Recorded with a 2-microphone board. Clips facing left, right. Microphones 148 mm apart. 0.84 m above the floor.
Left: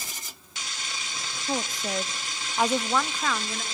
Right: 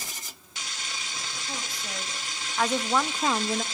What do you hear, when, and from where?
1.5 s a woman speaking: 50° left (ahead or behind), 1.3 m; by 3.6 s 40° right (ahead or behind), 0.9 m